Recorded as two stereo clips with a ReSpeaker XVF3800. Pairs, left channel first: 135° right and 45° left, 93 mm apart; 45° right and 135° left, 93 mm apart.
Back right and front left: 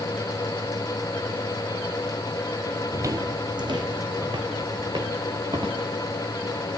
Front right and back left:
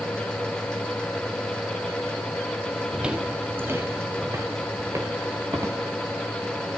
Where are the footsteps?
55° left, 0.6 m; by 5.8 s 80° left, 2.5 m.